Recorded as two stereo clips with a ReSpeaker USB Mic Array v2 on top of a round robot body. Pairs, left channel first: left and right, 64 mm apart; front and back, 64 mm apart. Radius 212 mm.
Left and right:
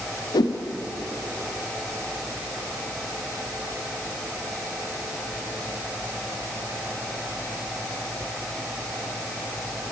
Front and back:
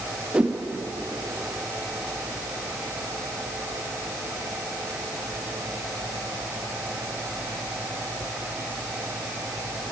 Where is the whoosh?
105° left, 1.3 m.